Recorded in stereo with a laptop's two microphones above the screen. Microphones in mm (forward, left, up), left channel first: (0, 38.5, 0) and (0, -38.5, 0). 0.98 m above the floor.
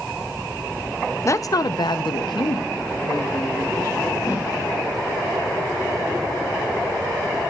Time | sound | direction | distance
1.2 | a woman speaking | 40° left (ahead or behind) | 0.6 m
4.2 | a whoosh | 50° left (ahead or behind) | 7.5 m